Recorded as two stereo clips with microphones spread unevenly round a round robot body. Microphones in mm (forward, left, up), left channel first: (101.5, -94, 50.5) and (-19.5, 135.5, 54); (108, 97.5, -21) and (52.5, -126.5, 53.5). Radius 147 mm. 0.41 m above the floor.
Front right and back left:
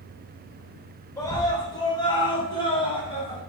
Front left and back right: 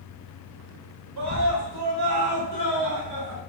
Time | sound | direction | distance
1.2 | a scream | 135° right | 2.5 m